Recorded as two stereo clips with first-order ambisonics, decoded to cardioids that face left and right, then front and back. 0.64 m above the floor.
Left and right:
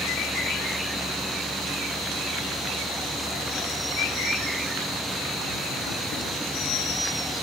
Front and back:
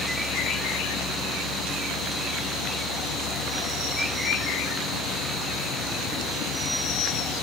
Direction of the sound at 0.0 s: 5° left.